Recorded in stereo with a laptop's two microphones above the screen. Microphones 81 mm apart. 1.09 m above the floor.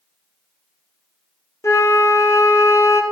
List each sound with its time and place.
1.6 s a flute: 40° left (ahead or behind), 0.8 m